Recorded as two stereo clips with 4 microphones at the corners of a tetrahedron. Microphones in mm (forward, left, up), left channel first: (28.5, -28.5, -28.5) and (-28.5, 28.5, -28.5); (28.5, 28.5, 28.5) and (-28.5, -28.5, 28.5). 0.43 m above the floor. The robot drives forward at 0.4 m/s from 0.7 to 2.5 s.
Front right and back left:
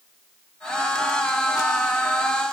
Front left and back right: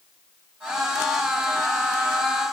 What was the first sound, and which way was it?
Only background noise.